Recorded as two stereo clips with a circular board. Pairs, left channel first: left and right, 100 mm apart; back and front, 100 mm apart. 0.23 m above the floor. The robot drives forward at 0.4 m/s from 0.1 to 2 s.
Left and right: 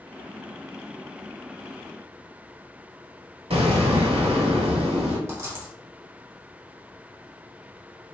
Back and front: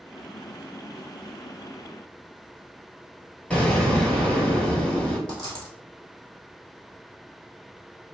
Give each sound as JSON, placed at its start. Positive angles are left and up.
{"t": 3.5, "sound": "an explosion", "azimuth_deg": -105, "distance_m": 0.7}
{"t": 5.3, "sound": "a dropped coin", "azimuth_deg": -150, "distance_m": 1.4}